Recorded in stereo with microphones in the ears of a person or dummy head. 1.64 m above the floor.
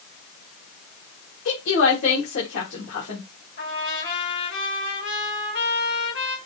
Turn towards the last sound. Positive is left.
turn(degrees=70)  # may be behind; listen again after turning